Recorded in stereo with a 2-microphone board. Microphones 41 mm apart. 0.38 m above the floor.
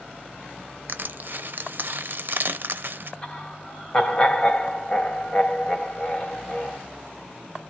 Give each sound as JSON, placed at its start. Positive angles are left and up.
{"t": 0.9, "sound": "crushing", "side_deg": -55, "distance_m": 0.6}
{"t": 3.2, "sound": "laughter", "side_deg": 25, "distance_m": 2.5}